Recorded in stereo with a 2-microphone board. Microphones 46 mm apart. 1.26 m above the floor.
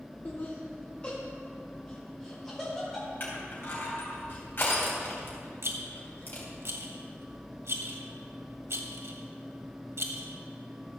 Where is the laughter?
45° left (ahead or behind), 0.9 m; by 3.1 s 5° left (ahead or behind), 3 m.